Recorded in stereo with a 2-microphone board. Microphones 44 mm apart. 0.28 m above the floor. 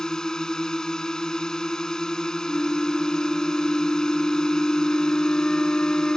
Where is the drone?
15° left (ahead or behind).